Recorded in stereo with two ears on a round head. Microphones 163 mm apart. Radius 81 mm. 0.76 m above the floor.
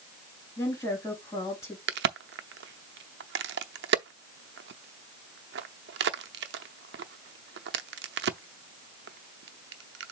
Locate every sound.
0.6 s a woman speaking: 15° left (ahead or behind), 3.5 m
1.9 s a crack: 65° right (ahead or behind), 0.7 m